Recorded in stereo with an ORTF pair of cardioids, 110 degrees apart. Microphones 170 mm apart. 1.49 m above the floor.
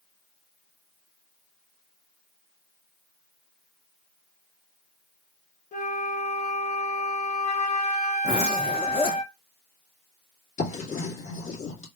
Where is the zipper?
35° left, 1.6 m.